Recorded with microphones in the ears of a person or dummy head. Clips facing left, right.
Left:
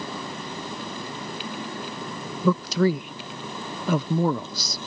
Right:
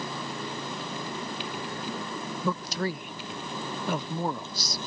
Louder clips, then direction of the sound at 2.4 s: Left 10 dB; 80° left.